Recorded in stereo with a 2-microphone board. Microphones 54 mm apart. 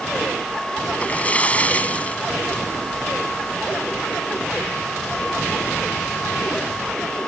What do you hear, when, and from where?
0.9 s a splash: 25° left (ahead or behind)